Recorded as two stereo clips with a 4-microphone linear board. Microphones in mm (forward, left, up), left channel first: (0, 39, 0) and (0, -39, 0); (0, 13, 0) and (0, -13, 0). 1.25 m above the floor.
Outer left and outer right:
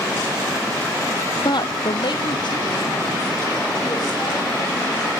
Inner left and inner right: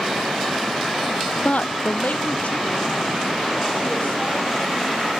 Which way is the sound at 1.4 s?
60° left (ahead or behind).